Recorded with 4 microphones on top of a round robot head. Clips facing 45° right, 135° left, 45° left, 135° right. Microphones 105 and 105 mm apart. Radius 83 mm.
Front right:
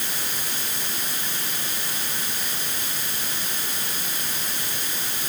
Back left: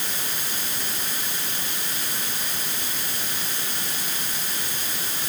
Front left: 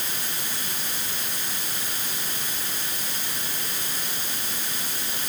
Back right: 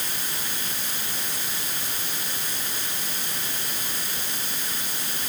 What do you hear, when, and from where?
Only background noise.